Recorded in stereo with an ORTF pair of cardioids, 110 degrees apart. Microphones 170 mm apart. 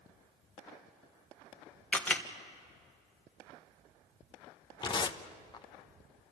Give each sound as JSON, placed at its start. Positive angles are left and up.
{"t": 1.9, "sound": "a camera shutter", "azimuth_deg": 10, "distance_m": 1.3}
{"t": 4.8, "sound": "tearing paper", "azimuth_deg": 25, "distance_m": 0.9}